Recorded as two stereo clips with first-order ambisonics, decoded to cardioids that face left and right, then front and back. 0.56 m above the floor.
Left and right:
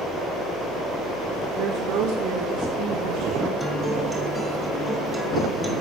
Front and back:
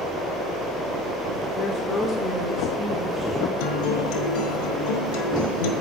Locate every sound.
1.6 s a woman speaking: 50° right, 1.1 m; by 3.5 s 95° right, 2.5 m
3.6 s a guitar: 5° right, 1.1 m